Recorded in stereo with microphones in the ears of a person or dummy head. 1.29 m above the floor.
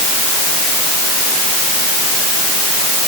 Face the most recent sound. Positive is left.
No sound to turn to.